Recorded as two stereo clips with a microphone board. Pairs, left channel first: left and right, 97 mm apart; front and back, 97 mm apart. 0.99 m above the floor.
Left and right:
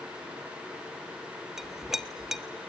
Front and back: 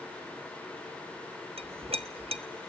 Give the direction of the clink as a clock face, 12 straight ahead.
6 o'clock.